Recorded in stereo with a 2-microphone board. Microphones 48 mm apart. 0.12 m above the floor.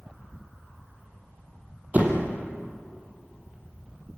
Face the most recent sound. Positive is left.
turn(degrees=-40)  # may be behind; listen again after turning